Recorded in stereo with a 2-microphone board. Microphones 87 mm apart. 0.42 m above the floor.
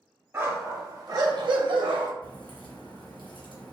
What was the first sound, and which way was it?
A dog barking, 25° right (ahead or behind).